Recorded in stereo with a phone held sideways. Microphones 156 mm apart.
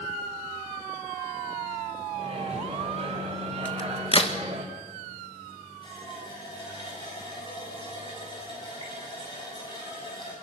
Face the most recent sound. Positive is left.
turn(degrees=30)  # may be behind; listen again after turning